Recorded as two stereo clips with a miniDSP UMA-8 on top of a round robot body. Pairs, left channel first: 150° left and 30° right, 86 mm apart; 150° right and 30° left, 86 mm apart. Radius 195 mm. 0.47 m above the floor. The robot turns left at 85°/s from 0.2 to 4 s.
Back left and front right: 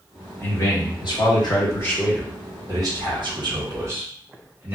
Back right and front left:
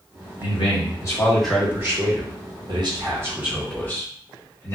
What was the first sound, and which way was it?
A man speaking, 150° right.